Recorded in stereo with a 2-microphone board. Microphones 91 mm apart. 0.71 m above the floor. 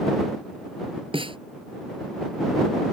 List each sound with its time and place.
1.1 s a snare drum: 65° right (ahead or behind)